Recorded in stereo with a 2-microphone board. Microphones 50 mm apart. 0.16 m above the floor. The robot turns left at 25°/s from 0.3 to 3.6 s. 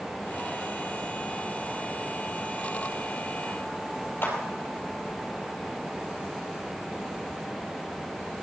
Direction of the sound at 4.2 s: 45° left (ahead or behind).